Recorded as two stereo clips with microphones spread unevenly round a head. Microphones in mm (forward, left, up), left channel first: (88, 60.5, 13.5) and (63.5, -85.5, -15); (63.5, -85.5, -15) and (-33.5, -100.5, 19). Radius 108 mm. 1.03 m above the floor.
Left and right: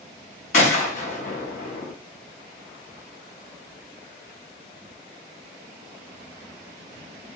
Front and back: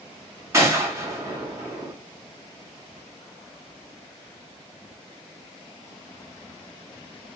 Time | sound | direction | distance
0.5 | a gunshot | 125° left | 1.0 m